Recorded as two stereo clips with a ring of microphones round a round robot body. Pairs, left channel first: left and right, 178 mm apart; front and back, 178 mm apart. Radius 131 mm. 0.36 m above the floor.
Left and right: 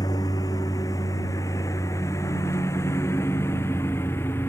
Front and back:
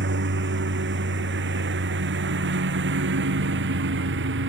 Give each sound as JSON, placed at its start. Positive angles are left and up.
{"t": 0.0, "sound": "a lawn mower", "azimuth_deg": 165}